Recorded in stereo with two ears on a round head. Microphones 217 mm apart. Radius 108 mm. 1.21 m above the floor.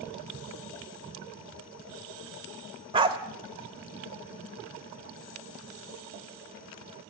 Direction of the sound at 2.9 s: 20° right (ahead or behind).